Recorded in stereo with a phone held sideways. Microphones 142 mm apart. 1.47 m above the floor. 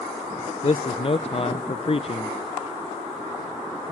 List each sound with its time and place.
0.6 s a man speaking: 45° left (ahead or behind), 0.6 m